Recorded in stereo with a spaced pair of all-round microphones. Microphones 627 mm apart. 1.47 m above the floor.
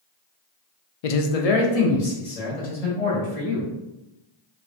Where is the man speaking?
65° left (ahead or behind), 0.5 m; by 3.7 s 70° left (ahead or behind), 2 m.